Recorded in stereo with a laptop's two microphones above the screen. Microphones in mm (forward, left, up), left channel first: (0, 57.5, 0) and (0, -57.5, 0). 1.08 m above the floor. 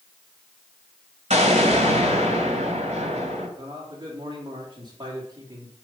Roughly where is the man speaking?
Right.